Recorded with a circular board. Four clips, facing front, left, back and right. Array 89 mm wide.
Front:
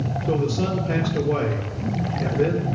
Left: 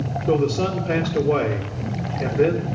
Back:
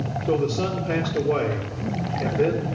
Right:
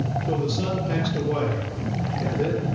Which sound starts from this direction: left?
A man speaking, at 0.3 s.